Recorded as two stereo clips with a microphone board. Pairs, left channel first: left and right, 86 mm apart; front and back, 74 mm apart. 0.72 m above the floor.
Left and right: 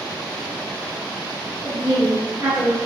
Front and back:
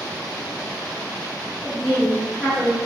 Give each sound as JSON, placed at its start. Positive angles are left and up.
{"t": 1.6, "sound": "a woman speaking", "azimuth_deg": -100, "distance_m": 1.0}